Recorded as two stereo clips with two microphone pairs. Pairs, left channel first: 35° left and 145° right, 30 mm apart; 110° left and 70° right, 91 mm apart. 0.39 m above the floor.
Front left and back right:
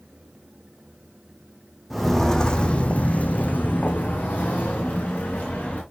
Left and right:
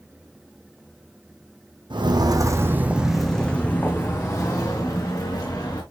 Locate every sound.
1.9 s footsteps: 50° right, 1.3 m; by 5.8 s 60° left, 3.5 m